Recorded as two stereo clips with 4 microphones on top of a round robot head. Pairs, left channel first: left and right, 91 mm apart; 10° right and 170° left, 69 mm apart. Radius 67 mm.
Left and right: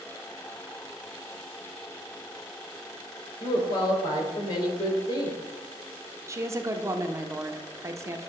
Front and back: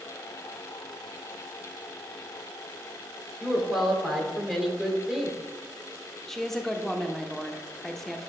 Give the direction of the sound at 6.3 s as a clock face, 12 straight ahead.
3 o'clock.